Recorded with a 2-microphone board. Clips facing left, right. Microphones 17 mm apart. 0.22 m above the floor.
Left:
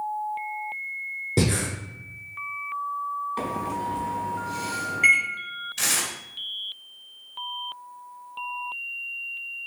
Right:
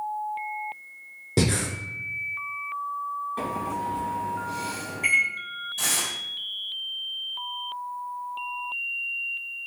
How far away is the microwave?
About 1.3 m.